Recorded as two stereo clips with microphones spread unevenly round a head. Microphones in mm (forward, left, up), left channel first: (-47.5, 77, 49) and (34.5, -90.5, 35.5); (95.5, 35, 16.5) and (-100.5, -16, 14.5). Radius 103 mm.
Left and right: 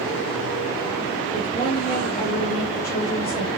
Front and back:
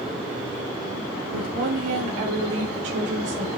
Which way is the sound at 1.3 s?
175° left.